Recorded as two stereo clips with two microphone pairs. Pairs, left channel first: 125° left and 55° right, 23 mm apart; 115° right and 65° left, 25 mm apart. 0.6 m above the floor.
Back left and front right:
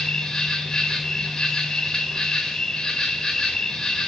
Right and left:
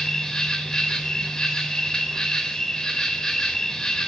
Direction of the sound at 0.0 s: 175° right.